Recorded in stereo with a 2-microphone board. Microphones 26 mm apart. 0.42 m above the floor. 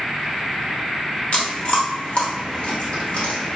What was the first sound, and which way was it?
Chewing, 50° left (ahead or behind).